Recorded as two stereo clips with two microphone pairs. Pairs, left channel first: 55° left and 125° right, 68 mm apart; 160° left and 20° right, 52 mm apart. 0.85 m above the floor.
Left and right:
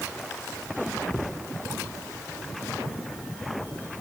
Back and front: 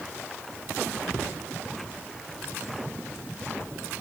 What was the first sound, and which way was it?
Only background noise.